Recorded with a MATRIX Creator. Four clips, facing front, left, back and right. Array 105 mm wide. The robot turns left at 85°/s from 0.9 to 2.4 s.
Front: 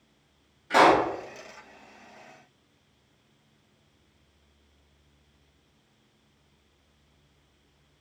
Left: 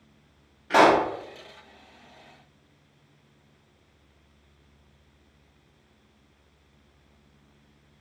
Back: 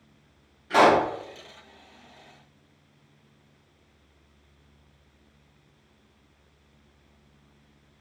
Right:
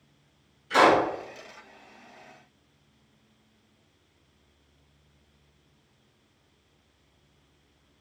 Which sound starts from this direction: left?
A pop, at 0.7 s.